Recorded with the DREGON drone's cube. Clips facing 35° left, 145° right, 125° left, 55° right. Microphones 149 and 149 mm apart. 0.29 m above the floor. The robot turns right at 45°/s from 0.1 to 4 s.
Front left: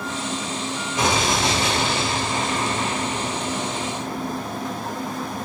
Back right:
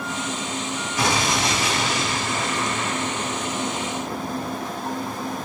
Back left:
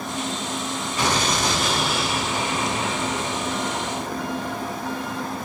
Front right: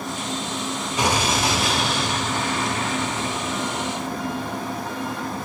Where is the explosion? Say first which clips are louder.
Front left 2 dB, front right 1 dB; straight ahead, 1.1 m; by 4.8 s 140° left, 1.1 m.